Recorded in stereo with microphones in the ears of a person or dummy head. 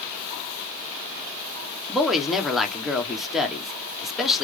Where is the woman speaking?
Centre (ahead or behind), 0.9 m.